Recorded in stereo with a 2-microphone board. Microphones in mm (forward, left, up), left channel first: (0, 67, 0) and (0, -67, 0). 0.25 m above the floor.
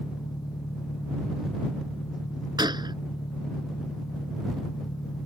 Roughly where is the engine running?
Left.